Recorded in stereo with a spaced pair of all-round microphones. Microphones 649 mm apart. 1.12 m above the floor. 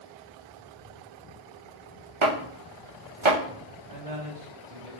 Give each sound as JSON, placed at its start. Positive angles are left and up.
{"t": 2.2, "sound": "chopping", "side_deg": -50, "distance_m": 0.9}
{"t": 3.9, "sound": "a man speaking", "side_deg": -65, "distance_m": 1.9}